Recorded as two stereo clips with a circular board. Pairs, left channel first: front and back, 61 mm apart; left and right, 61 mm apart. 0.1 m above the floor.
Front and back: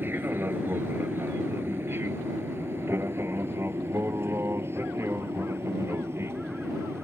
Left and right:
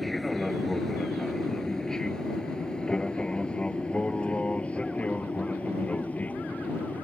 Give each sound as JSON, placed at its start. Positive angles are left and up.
{"t": 0.0, "sound": "an aircraft", "azimuth_deg": 175}